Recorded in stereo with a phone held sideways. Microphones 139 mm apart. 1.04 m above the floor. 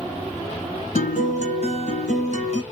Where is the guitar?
55° left (ahead or behind), 2.5 m.